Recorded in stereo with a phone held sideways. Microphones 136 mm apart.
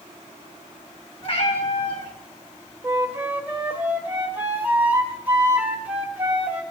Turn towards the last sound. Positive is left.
turn(degrees=-15)  # may be behind; listen again after turning